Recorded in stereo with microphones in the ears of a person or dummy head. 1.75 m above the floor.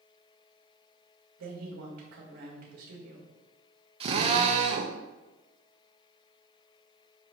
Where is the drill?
30° right (ahead or behind), 0.8 m.